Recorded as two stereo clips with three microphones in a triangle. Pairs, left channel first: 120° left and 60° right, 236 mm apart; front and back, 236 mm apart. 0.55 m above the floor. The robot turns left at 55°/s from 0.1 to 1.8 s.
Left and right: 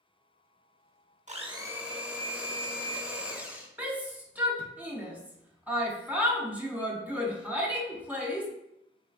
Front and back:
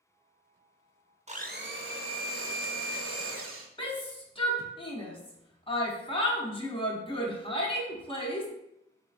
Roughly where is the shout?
Ahead.